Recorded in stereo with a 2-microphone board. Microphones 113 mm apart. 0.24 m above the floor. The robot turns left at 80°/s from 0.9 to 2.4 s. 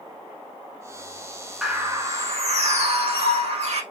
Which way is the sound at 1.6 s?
5° right.